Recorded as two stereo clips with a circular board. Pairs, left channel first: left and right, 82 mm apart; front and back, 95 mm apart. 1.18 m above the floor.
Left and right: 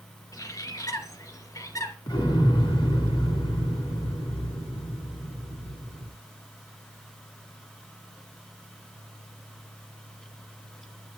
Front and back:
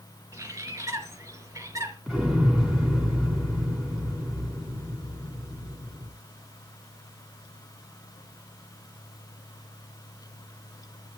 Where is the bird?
130° left, 3 m.